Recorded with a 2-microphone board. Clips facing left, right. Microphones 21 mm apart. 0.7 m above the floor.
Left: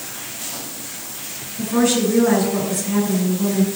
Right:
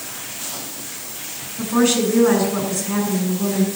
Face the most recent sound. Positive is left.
turn(degrees=-30)  # may be behind; listen again after turning